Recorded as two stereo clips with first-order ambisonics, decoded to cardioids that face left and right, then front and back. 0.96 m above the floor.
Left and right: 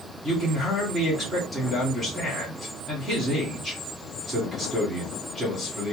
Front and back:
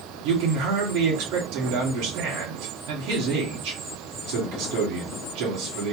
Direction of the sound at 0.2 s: Straight behind.